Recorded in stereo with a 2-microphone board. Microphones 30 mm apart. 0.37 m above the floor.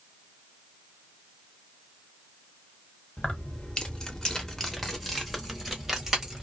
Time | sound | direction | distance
3.2 | keys jangling | 35° left (ahead or behind) | 0.9 m